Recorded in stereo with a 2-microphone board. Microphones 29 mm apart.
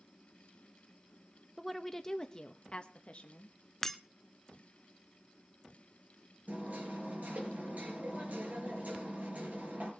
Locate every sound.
1.6 s a woman speaking: 5° left (ahead or behind), 0.9 m; by 3.6 s 50° left (ahead or behind), 1.3 m
3.8 s breaking glass: 10° left (ahead or behind), 0.8 m
6.5 s hammering: 70° right (ahead or behind), 6 m